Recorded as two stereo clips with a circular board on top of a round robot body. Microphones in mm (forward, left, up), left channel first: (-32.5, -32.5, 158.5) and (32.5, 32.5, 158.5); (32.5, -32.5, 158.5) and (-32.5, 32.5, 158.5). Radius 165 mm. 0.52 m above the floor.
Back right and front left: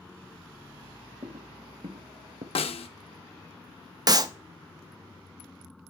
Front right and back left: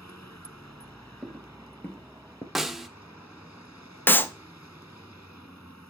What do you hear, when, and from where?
1.2 s footsteps: 50° left, 0.6 m; by 2.5 s 15° left, 1.1 m
2.5 s a snare drum: 140° right, 0.8 m
4.1 s a clap: 15° left, 0.8 m